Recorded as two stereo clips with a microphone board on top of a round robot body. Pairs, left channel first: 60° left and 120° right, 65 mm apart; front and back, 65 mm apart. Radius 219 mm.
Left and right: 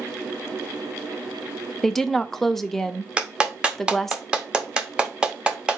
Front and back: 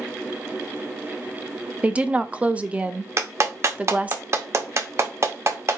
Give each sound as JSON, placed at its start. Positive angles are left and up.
{"t": 1.8, "sound": "a woman speaking", "azimuth_deg": 140, "distance_m": 0.8}
{"t": 3.2, "sound": "a clap", "azimuth_deg": 170, "distance_m": 1.1}